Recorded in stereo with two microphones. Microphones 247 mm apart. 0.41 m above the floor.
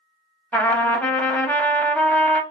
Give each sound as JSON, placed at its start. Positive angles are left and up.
{"t": 0.5, "sound": "a trumpet", "side_deg": 5, "distance_m": 0.5}